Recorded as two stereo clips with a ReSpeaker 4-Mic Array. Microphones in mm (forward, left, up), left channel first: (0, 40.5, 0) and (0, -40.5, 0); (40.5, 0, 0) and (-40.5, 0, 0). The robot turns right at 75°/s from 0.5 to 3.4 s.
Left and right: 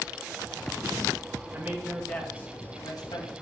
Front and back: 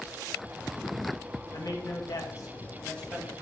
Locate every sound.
1.5 s a man speaking: 35° right, 1.6 m; by 3.3 s 100° left, 1.6 m